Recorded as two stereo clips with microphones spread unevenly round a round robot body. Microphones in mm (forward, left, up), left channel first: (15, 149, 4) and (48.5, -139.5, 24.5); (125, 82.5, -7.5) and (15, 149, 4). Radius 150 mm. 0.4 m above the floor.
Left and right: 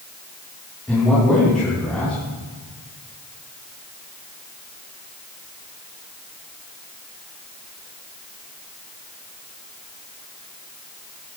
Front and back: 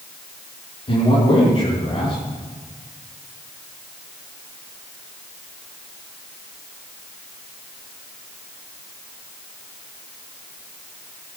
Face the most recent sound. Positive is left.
turn(degrees=10)